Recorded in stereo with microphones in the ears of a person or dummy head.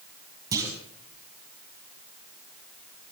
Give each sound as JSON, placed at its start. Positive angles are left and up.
{"t": 0.5, "sound": "a clunk", "side_deg": -20, "distance_m": 5.0}